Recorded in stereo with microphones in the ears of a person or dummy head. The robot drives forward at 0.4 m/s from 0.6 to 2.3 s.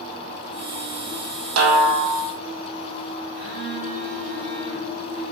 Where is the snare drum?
80° right, 0.8 m; by 2.3 s 70° right (ahead or behind), 0.8 m.